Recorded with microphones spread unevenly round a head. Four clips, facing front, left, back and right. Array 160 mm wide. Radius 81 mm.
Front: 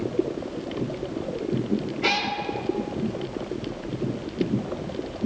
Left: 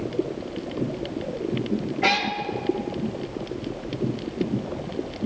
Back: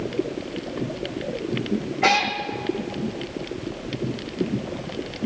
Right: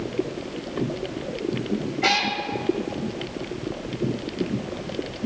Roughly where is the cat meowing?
Behind left.